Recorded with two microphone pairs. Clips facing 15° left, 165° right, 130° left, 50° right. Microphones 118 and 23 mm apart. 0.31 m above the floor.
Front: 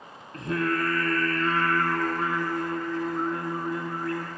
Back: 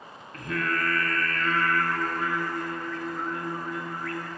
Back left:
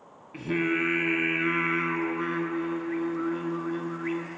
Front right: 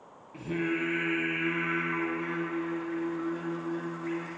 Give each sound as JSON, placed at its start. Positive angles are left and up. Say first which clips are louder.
{"t": 0.3, "sound": "singing", "louder": "front 3 dB, back left 4 dB", "azimuth_deg": 70, "distance_m": 0.6}